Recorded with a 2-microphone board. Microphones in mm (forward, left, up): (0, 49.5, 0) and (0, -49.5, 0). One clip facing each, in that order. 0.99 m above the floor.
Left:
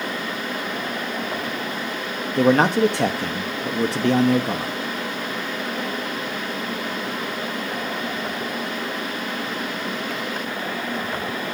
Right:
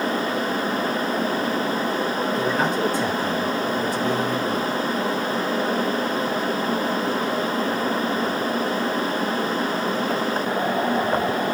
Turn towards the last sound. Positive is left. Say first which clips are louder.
# left 10 dB
turn(degrees=70)  # may be behind; listen again after turning